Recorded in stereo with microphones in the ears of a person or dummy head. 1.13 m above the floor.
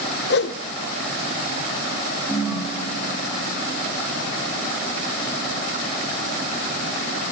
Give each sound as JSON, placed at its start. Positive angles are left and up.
{"t": 0.3, "sound": "a whoosh", "side_deg": 50, "distance_m": 0.9}
{"t": 2.3, "sound": "a ringtone", "side_deg": -15, "distance_m": 8.5}